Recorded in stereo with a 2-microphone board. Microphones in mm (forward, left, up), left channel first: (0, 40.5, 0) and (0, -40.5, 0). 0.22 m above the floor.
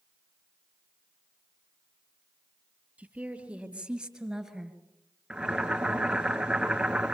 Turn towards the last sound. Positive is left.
turn(degrees=-10)  # may be behind; listen again after turning